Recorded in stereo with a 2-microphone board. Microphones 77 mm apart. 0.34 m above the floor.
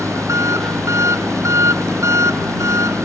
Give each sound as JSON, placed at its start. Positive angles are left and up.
{"t": 0.0, "sound": "an engine running", "side_deg": -40}